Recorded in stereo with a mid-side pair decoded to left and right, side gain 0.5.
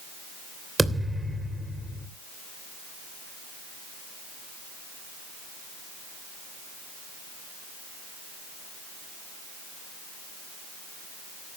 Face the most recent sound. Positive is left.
turn(degrees=-20)